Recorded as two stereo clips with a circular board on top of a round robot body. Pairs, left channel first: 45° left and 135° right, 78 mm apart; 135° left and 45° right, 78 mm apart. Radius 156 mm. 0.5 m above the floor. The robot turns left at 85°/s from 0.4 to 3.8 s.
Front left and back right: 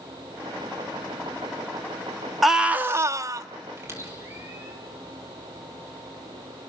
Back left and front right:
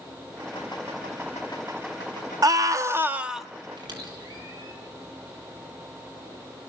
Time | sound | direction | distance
2.4 | a scream | 45° right | 1.2 m
3.8 | a squeak | 75° right | 5 m